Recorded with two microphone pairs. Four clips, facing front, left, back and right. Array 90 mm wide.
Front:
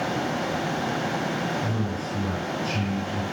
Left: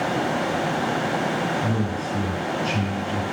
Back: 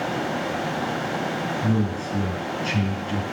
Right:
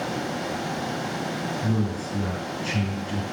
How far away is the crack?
No crack in this recording.